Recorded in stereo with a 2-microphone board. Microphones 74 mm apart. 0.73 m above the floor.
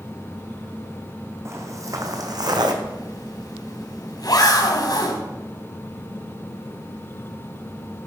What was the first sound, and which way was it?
Footsteps, 40° right (ahead or behind).